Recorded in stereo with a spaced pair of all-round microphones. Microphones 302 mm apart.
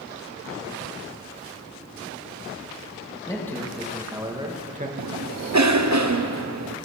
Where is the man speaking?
10° left (ahead or behind), 2 m; by 4.9 s 30° right (ahead or behind), 1.6 m.